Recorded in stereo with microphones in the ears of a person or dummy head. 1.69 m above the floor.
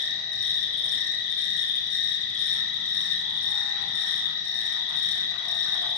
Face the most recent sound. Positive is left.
turn(degrees=70)  # may be behind; listen again after turning